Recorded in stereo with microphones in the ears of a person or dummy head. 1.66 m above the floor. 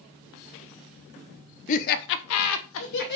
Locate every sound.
1.7 s laughter: 40° left (ahead or behind), 0.7 m; by 3.2 s 50° left (ahead or behind), 0.8 m